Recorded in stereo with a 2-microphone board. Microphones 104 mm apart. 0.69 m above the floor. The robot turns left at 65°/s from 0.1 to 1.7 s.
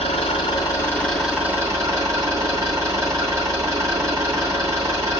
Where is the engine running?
75° left, 3 m; by 5.2 s 30° right, 3 m.